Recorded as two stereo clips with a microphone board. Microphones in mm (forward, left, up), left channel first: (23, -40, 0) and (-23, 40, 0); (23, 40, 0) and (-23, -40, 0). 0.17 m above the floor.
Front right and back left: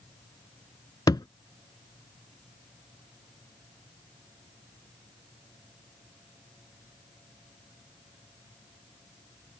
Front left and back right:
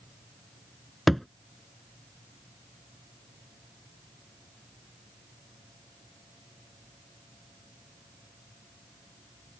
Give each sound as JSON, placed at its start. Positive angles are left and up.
{"t": 1.1, "sound": "a thud", "azimuth_deg": -30}